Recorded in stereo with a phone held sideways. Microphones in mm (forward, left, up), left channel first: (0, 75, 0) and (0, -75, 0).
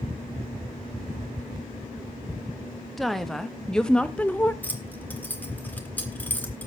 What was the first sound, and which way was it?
A woman speaking, centre (ahead or behind).